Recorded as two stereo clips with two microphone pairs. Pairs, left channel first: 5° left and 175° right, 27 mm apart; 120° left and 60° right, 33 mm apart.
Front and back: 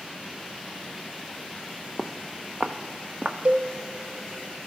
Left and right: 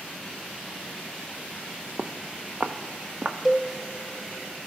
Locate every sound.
2.0 s footsteps: 75° right, 0.8 m; by 3.4 s 110° right, 1.4 m
3.5 s a cowbell: 140° right, 0.5 m